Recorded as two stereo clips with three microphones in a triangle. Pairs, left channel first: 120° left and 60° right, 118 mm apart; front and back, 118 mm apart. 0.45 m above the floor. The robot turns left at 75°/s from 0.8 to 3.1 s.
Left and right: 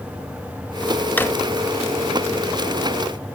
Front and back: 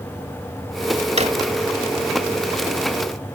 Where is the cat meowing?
I don't hear a cat meowing.